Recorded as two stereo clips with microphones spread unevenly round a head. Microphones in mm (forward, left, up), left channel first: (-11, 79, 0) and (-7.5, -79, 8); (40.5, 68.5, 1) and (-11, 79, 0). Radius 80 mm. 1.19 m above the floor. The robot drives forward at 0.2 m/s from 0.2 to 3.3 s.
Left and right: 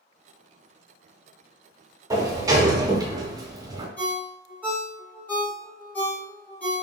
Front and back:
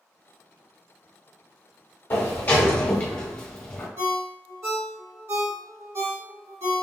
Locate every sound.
2.1 s a sliding door: 30° right, 0.7 m; by 3.9 s 55° right, 0.7 m
4.0 s a ringtone: 170° left, 1.2 m